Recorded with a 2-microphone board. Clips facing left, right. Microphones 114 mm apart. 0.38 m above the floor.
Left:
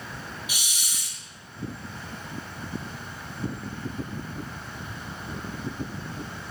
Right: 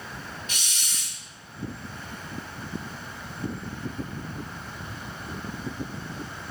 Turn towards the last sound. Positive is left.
turn(degrees=10)  # may be behind; listen again after turning